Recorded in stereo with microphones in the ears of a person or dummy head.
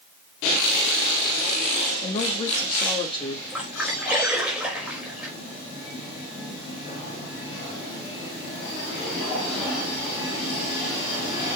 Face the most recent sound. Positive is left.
turn(degrees=-10)  # may be behind; listen again after turning